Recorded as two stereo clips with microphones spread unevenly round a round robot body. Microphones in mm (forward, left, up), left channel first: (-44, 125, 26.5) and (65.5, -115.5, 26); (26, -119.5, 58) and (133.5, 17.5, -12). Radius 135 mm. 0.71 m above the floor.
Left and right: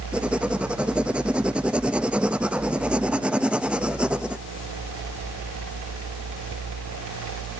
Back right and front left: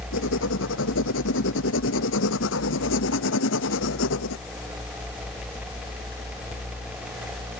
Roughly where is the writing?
Behind right.